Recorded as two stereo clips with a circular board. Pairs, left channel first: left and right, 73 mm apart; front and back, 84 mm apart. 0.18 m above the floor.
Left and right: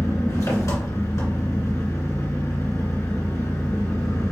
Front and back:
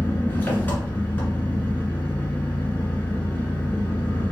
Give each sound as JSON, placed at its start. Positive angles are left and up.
{"t": 0.0, "sound": "an engine running", "azimuth_deg": 60, "distance_m": 1.6}